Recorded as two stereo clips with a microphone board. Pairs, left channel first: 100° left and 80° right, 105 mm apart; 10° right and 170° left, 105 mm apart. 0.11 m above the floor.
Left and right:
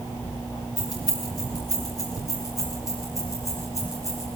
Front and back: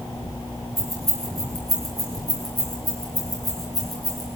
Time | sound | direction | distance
0.8 | keys jangling | 50° left | 9.5 m